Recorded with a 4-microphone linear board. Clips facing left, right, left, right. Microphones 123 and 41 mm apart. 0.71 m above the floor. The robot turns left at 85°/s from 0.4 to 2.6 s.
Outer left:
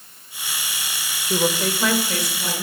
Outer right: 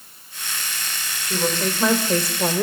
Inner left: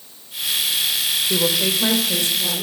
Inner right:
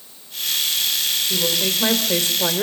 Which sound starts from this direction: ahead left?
A woman speaking, at 1.3 s.